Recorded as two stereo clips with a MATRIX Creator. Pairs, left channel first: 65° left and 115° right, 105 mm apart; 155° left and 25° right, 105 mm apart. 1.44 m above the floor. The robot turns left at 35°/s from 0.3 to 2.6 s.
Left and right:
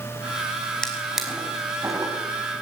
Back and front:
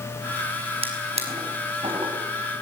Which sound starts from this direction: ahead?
A drawer, at 0.8 s.